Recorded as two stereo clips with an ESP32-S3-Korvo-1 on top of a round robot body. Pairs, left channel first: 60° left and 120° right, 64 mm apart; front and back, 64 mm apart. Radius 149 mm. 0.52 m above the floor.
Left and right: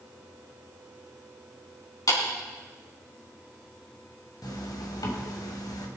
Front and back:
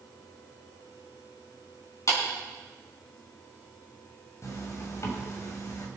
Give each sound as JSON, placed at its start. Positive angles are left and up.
{"t": 2.1, "sound": "a clap", "azimuth_deg": 35, "distance_m": 5.0}
{"t": 4.4, "sound": "a zipper", "azimuth_deg": 40, "distance_m": 2.5}